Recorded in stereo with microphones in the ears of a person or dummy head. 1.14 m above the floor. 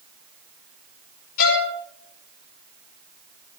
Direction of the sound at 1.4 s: 50° left (ahead or behind).